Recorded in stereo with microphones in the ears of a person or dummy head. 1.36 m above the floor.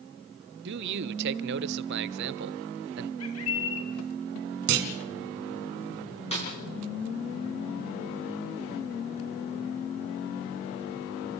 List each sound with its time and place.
0.7 s a man speaking: 55° right (ahead or behind), 0.8 m
3.2 s a bird: 80° left, 3 m
4.7 s a clunk: 60° right (ahead or behind), 2.0 m
6.3 s a snare drum: 30° left (ahead or behind), 7.5 m